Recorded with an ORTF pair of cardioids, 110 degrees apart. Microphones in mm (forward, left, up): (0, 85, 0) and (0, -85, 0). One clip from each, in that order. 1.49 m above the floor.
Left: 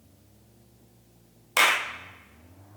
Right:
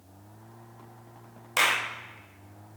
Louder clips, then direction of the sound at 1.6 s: Left 3 dB; 15° left.